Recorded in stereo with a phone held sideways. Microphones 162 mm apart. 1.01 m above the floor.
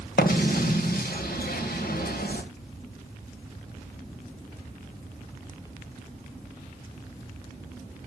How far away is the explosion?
About 1.9 m.